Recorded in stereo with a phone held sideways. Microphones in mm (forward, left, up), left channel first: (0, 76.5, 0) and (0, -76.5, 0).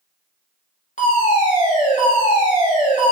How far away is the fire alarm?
About 3 m.